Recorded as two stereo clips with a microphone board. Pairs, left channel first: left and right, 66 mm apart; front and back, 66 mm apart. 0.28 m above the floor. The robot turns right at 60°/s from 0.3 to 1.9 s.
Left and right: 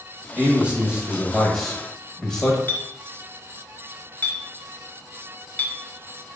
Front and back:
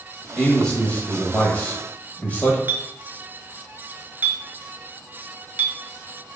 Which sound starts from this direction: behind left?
A clink, at 2.7 s.